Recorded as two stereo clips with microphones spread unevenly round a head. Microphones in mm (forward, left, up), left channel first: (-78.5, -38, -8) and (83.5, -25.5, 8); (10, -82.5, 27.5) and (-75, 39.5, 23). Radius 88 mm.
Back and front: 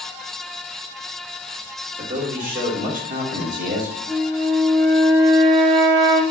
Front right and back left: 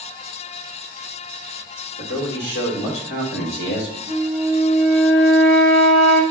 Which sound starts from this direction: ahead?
A flute, at 4.1 s.